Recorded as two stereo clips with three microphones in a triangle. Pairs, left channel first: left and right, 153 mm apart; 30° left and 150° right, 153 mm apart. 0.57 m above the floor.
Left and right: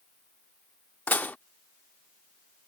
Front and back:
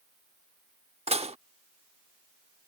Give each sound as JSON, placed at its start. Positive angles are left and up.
{"t": 1.1, "sound": "dishes clattering", "azimuth_deg": 170}